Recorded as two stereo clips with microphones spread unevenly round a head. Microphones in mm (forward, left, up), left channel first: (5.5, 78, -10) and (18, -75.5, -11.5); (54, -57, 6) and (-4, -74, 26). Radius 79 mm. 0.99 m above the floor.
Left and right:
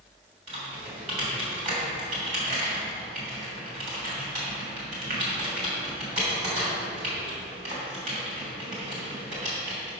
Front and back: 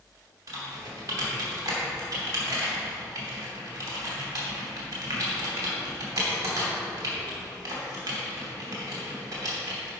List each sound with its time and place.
0.5 s typing on a keyboard: 135° right, 3 m